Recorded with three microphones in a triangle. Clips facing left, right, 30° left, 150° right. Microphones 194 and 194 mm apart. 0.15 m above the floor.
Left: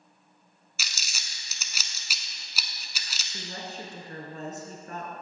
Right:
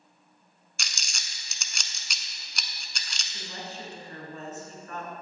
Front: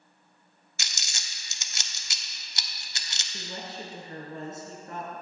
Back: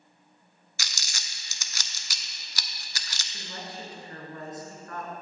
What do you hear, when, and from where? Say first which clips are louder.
0.8 s crumpling: even, back 1 dB; 10° left, 0.6 m
3.3 s a woman speaking: left 1 dB, front 2 dB; 75° left, 1.7 m